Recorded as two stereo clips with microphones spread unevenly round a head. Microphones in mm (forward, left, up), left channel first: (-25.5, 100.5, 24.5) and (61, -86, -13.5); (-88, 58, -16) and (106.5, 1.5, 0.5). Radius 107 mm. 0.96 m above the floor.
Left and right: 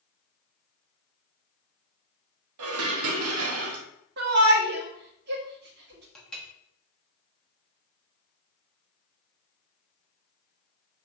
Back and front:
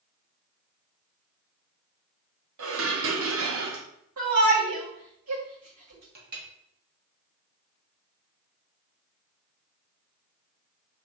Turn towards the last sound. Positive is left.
turn(degrees=25)